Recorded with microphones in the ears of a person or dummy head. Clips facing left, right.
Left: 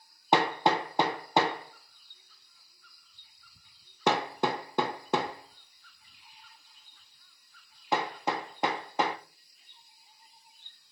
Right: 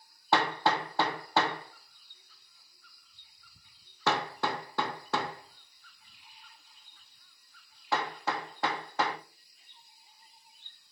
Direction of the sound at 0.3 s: 10° left (ahead or behind).